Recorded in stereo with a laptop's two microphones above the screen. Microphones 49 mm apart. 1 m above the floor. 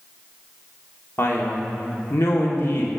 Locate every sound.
1.2 s a man speaking: 55° left (ahead or behind), 1.9 m